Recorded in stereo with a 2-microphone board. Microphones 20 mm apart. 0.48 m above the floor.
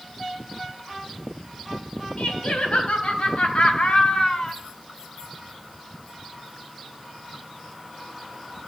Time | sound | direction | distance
2.2 | laughter | 70° left (ahead or behind) | 3.5 m